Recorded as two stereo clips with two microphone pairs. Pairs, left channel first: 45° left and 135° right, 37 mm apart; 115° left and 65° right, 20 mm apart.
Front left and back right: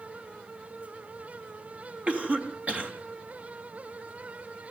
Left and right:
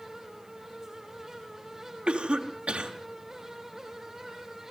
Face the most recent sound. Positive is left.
turn(degrees=-85)